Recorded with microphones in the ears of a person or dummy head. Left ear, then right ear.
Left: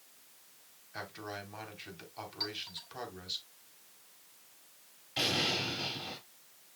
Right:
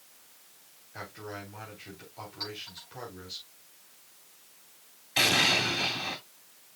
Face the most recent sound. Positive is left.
turn(degrees=-35)  # may be behind; listen again after turning